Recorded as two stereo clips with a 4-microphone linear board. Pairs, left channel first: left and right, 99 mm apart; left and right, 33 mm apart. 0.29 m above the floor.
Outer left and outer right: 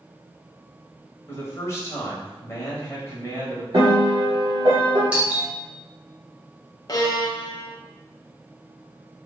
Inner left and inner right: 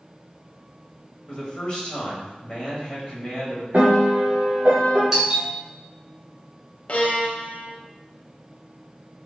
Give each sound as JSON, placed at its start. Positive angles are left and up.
{"t": 1.3, "sound": "a man speaking", "side_deg": 30, "distance_m": 1.1}
{"t": 3.7, "sound": "a piano", "side_deg": -55, "distance_m": 1.2}
{"t": 5.1, "sound": "a doorbell", "side_deg": -15, "distance_m": 1.6}
{"t": 6.9, "sound": "a violin", "side_deg": 40, "distance_m": 0.5}